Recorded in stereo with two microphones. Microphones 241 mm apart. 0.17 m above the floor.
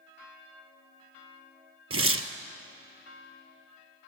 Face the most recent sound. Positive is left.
turn(degrees=-75)  # may be behind; listen again after turning